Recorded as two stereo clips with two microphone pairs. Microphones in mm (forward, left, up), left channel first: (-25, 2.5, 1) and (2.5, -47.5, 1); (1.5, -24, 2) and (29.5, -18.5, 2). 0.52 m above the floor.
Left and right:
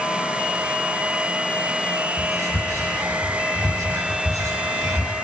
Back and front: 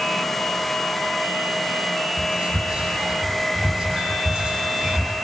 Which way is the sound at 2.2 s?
45° right.